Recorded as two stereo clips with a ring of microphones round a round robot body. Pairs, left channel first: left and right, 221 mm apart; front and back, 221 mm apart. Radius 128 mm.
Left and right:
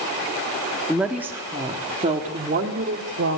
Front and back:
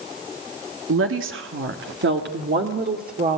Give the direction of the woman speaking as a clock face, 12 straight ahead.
6 o'clock.